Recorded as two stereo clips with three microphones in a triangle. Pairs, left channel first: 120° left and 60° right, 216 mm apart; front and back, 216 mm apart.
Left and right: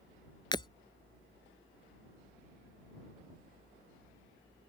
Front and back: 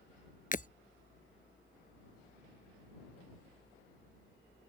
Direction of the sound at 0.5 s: 50° left.